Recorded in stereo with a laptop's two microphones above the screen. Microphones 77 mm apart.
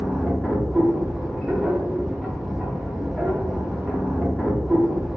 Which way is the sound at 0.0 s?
5° right (ahead or behind).